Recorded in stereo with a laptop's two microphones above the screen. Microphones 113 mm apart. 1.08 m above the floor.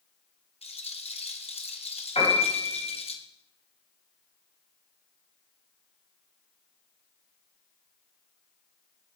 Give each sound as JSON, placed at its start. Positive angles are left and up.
{"t": 0.6, "sound": "a rattle", "side_deg": 70, "distance_m": 0.7}
{"t": 2.1, "sound": "a piano", "side_deg": 80, "distance_m": 3.0}